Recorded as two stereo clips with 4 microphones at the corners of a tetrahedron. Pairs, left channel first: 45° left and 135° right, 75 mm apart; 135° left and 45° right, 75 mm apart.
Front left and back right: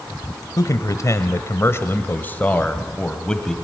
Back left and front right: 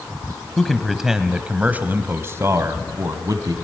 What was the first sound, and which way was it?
A man speaking, 50° left.